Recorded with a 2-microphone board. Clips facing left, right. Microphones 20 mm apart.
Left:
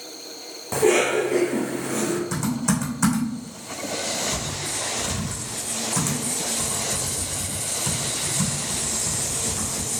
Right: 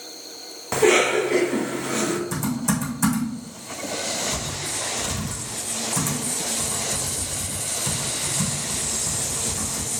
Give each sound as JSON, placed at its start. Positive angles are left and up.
{"t": 0.7, "sound": "a cough", "side_deg": -35, "distance_m": 1.5}
{"t": 2.3, "sound": "typing on a keyboard", "side_deg": 15, "distance_m": 3.0}